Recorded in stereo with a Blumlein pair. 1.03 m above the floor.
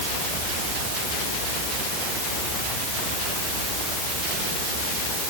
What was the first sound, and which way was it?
Only background noise.